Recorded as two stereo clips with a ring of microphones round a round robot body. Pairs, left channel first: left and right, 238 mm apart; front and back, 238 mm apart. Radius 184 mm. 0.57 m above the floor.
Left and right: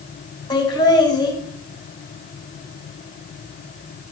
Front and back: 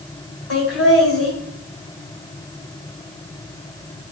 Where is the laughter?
20° left, 3 m.